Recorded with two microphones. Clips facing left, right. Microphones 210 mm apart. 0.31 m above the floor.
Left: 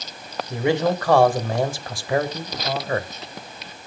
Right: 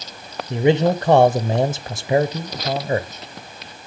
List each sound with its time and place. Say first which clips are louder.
0.5 s a man speaking: right 4 dB; 20° right (ahead or behind), 0.9 m